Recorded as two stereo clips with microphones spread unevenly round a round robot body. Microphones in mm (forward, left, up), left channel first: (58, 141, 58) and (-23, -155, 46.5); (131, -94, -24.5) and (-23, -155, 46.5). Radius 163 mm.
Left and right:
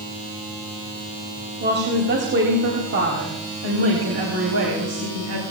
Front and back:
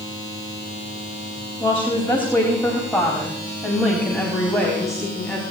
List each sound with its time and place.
1.6 s a woman speaking: 50° right, 4 m; by 5.4 s 65° right, 5.5 m